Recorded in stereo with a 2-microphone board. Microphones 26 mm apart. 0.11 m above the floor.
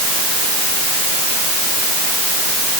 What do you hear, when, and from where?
Only background noise.